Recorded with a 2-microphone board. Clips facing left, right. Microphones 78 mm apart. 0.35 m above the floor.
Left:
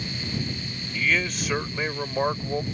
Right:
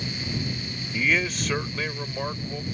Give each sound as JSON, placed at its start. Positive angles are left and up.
{"t": 0.9, "sound": "a man speaking", "side_deg": -10}